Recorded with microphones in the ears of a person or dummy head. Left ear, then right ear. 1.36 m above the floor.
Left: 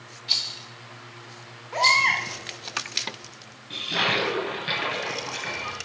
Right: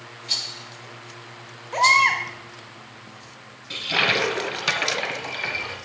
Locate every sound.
0.3 s a rattle: 10° left (ahead or behind), 1.1 m
1.7 s a baby crying: 5° left (ahead or behind), 1.1 m
3.7 s a toilet flushing: 40° right (ahead or behind), 2 m